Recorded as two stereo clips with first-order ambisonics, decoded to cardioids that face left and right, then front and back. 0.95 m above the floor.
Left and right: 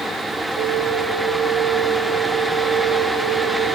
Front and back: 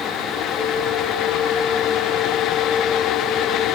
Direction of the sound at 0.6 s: 60° right.